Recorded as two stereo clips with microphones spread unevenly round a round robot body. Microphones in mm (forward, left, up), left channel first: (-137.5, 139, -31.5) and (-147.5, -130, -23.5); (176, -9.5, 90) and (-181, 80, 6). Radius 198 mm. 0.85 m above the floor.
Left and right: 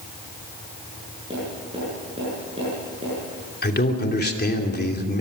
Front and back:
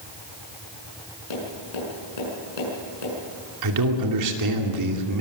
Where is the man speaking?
140° left, 2.5 m.